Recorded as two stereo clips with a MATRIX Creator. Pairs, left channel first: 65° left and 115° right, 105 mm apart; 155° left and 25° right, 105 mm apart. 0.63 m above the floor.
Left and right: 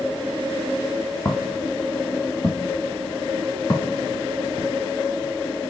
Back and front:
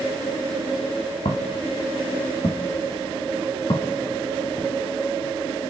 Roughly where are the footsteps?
Behind left.